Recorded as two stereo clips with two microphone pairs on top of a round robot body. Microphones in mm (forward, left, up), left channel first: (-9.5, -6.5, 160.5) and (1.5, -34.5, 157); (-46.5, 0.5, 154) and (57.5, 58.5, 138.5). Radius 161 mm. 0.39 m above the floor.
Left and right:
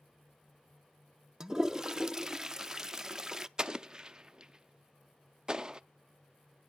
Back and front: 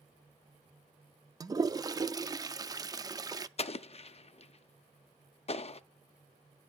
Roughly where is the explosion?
Behind right.